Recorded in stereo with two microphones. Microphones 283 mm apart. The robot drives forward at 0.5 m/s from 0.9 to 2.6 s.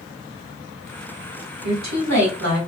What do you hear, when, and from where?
1.6 s a woman speaking: 80° right, 1.9 m; by 2.6 s 85° right, 1.9 m